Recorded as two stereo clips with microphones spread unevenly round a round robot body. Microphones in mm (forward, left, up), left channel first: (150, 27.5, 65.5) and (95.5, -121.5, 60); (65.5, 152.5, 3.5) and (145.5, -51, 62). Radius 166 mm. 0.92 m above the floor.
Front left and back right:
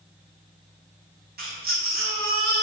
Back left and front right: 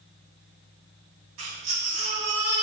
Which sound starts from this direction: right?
A baby crying, at 1.4 s.